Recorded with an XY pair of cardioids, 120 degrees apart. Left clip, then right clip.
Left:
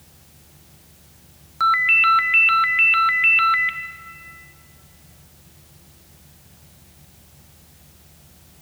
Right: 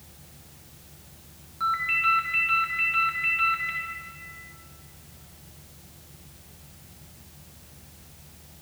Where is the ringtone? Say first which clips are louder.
Left 9 dB; 70° left, 0.7 m.